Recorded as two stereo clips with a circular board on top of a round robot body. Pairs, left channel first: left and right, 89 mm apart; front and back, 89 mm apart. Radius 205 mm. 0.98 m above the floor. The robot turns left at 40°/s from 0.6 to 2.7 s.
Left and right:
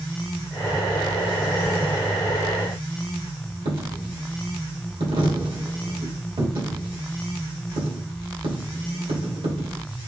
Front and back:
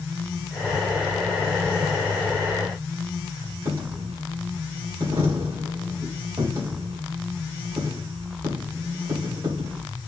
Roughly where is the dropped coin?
Behind right.